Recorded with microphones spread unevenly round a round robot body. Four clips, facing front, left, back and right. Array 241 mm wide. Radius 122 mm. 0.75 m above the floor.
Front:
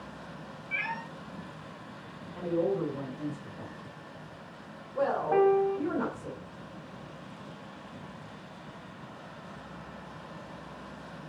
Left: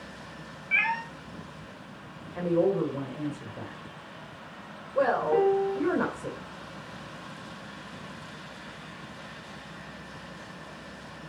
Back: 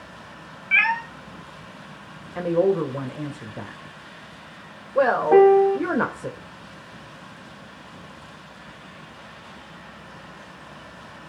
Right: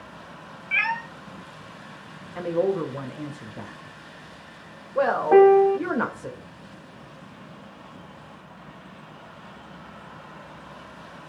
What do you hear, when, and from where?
0.7 s a cat meowing: 175° right, 2 m
2.4 s a woman speaking: 170° right, 2.5 m
5.3 s a piano: 150° right, 0.6 m